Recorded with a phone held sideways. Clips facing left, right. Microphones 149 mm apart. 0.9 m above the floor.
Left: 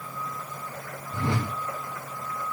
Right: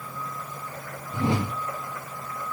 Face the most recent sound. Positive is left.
turn(degrees=-20)  # may be behind; listen again after turning